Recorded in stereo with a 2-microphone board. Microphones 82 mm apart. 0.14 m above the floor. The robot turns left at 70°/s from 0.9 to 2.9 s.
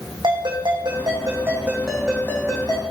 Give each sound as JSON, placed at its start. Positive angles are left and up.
{"t": 0.2, "sound": "a ringtone", "azimuth_deg": -105, "distance_m": 5.0}